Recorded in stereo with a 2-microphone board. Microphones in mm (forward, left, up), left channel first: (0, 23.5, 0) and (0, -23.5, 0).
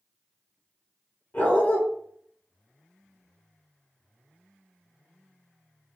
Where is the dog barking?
30° left (ahead or behind), 0.9 m.